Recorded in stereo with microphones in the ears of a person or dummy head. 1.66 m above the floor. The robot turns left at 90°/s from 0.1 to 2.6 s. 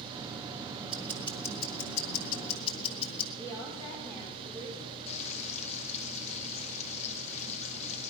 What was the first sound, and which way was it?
Ticking, 170° right.